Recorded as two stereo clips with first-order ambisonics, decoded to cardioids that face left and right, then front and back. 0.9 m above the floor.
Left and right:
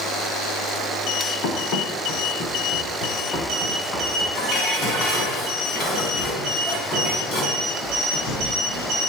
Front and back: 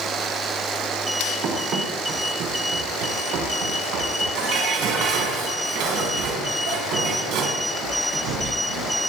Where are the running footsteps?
125° left, 4 m; by 4.2 s 160° left, 6 m.